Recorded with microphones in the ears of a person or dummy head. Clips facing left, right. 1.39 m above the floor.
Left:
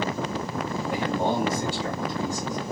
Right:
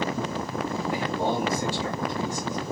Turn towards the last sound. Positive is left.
turn(degrees=40)  # may be behind; listen again after turning